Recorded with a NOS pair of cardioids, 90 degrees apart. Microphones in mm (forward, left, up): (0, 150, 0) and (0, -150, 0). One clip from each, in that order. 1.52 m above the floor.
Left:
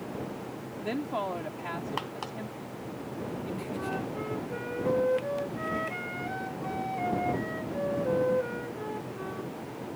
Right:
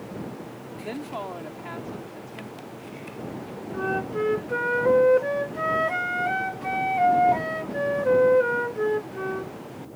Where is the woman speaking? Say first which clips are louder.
Left 1 dB; 15° left.